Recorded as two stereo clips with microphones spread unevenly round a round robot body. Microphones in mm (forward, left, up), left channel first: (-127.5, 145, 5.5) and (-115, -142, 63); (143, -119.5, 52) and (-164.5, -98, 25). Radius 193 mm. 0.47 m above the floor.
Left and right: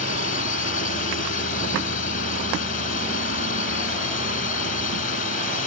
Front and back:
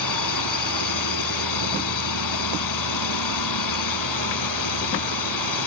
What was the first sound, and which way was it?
A drone, 30° left.